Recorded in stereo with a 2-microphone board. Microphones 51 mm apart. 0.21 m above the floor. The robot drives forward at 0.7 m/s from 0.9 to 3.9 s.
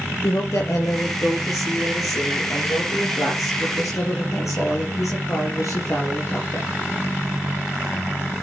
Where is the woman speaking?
70° left (ahead or behind), 4.5 m; by 6.7 s 75° left (ahead or behind), 4.5 m.